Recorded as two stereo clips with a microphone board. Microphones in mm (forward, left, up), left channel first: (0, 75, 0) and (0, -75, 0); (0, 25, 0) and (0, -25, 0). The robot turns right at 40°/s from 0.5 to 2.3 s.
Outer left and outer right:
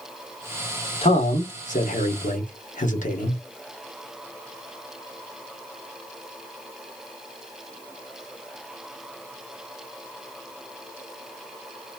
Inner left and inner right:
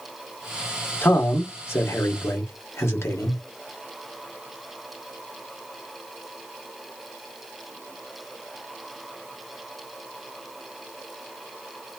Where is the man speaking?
50° left, 1.2 m; by 3.4 s 100° left, 1.2 m.